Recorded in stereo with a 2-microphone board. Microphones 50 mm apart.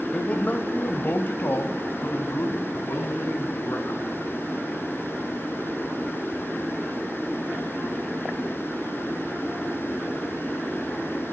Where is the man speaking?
30° left (ahead or behind), 0.9 m; by 4.0 s 70° left (ahead or behind), 3 m.